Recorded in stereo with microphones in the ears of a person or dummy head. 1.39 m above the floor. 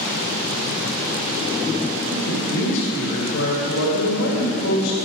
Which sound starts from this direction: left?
A man speaking, at 2.1 s.